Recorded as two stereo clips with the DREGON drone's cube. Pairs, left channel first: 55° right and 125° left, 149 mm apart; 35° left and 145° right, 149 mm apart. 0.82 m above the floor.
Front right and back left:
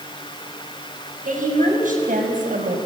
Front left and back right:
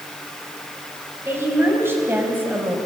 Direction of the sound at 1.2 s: 140° left.